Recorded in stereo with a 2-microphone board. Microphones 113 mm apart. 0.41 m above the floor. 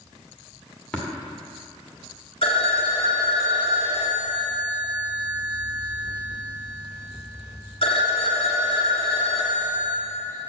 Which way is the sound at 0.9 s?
10° left (ahead or behind).